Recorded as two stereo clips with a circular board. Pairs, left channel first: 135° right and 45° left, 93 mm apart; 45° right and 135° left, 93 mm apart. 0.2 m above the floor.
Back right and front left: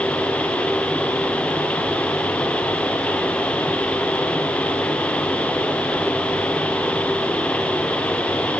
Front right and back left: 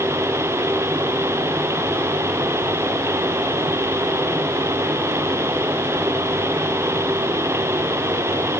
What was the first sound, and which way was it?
Only background noise.